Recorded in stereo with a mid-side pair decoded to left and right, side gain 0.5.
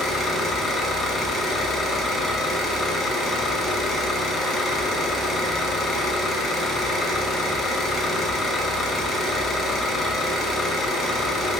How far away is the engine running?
About 0.8 m.